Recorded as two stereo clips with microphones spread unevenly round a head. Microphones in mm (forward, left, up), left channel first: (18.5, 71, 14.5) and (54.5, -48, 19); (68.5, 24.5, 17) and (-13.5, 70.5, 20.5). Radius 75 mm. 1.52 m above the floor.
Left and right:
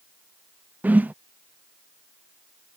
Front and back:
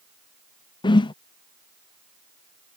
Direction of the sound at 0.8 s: 5° left.